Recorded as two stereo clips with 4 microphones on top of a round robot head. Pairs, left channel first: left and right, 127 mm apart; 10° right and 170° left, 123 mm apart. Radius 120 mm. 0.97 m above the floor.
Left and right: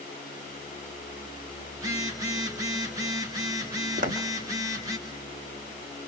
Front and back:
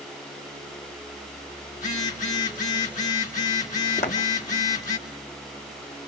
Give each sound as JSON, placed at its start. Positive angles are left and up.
{"t": 1.7, "sound": "a phone buzzing", "azimuth_deg": -25, "distance_m": 2.5}
{"t": 4.0, "sound": "footsteps", "azimuth_deg": -55, "distance_m": 2.5}